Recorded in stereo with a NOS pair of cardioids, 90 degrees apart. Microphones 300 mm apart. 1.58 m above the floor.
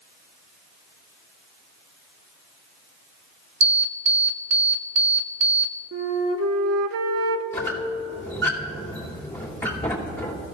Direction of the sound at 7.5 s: 10° left.